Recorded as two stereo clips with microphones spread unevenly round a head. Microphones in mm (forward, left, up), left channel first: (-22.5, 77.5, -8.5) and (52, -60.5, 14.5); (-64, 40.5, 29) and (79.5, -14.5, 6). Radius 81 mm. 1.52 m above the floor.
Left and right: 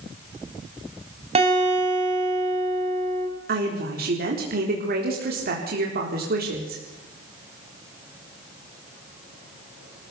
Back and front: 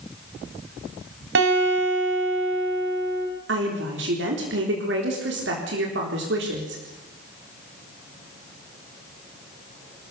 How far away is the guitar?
About 7 m.